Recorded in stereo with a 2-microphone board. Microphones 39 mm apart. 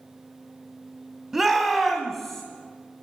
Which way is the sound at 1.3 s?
10° right (ahead or behind).